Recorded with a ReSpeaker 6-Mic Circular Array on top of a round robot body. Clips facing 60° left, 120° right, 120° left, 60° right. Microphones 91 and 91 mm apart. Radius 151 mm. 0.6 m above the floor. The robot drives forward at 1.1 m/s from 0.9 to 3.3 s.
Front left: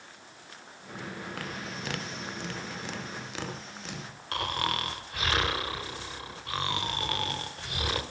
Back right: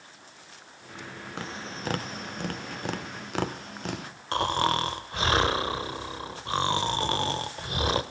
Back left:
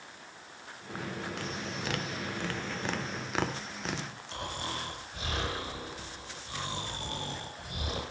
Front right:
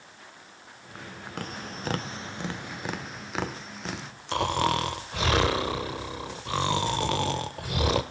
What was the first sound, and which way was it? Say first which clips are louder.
Tapping: back right 1 dB, even; 60° right.